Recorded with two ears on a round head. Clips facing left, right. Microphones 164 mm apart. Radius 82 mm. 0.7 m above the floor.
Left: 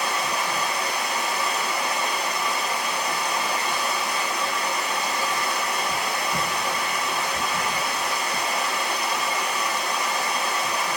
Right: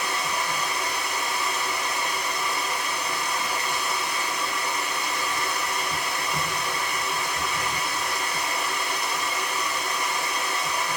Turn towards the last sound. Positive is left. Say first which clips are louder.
# left 3 dB
turn(degrees=60)  # may be behind; listen again after turning